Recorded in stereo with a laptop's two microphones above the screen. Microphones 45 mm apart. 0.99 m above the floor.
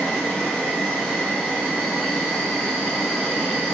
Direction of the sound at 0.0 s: 10° left (ahead or behind).